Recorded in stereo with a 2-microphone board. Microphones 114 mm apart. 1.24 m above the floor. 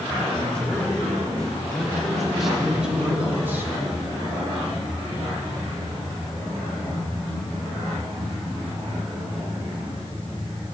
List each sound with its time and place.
0.3 s a man speaking: 10° left (ahead or behind), 4.5 m; by 3.7 s 20° right (ahead or behind), 1.9 m